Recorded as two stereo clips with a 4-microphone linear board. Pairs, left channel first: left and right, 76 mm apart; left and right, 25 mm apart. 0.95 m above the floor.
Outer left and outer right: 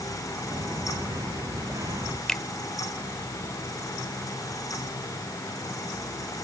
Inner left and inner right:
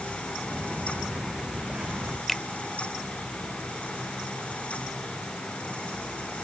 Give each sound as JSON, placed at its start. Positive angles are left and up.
{"t": 0.5, "sound": "footsteps", "side_deg": -40}
{"t": 2.3, "sound": "a finger snap", "side_deg": 10}